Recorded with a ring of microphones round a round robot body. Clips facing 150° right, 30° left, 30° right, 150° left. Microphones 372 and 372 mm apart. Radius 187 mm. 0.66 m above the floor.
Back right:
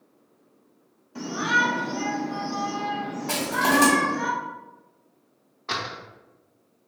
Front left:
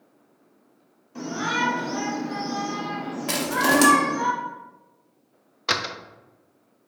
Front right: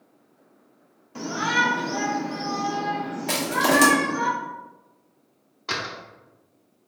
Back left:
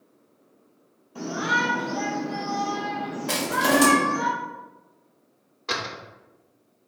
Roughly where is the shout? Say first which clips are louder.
Even, even; ahead right.